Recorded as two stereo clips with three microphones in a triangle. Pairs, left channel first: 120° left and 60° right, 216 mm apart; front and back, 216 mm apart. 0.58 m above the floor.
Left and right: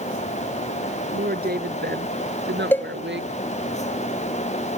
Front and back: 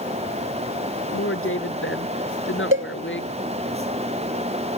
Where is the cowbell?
160° right.